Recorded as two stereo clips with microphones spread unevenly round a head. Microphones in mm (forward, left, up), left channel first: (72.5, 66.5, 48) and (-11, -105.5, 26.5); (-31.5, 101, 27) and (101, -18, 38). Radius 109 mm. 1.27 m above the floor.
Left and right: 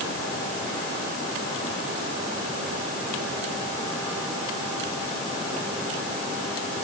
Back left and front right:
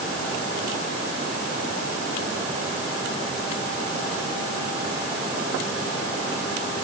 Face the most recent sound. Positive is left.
No sound to turn to.